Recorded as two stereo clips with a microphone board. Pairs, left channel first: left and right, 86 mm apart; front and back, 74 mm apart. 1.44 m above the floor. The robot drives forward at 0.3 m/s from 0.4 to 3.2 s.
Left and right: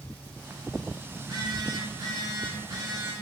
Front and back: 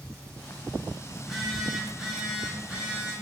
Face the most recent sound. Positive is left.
turn(degrees=-110)